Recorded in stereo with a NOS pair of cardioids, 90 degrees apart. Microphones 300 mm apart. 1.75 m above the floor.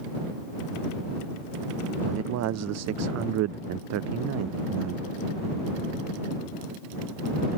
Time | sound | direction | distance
2.0 | a man speaking | 60° right | ?